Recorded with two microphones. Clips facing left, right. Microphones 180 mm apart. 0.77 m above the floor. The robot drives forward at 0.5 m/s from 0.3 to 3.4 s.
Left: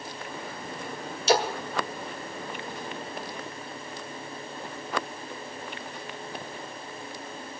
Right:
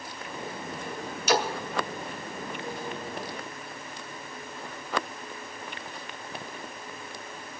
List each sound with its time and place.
1.3 s a splash: 30° left (ahead or behind), 2.0 m